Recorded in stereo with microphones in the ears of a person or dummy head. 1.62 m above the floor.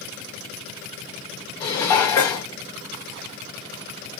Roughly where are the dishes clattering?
Centre.